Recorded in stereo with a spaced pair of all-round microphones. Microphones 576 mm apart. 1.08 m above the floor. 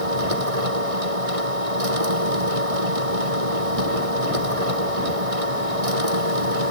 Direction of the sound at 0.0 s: 70° right (ahead or behind).